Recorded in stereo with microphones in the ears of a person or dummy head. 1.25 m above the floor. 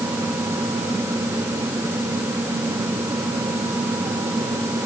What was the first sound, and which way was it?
Only background noise.